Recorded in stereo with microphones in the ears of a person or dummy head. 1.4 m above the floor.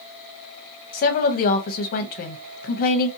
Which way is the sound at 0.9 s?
45° left (ahead or behind).